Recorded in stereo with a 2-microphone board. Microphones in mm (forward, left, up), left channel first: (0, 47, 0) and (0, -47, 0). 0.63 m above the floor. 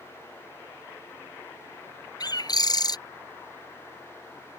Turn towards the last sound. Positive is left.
turn(degrees=45)  # may be behind; listen again after turning